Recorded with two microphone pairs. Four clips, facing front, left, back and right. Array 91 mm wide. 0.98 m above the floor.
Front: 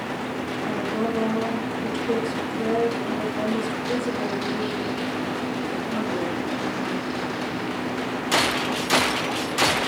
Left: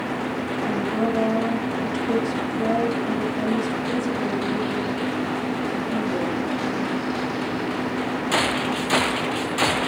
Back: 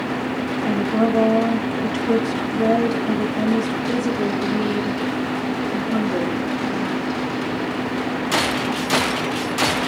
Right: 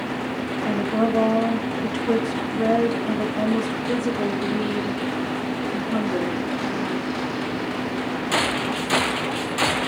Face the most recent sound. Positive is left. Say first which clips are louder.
# right 3 dB, back 7 dB
turn(degrees=-115)